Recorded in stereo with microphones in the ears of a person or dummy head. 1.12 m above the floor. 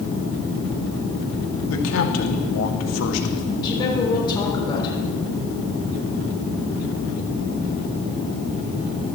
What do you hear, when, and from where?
1.7 s a man speaking: 80° left, 1.7 m
3.6 s a woman speaking: 25° left (ahead or behind), 3 m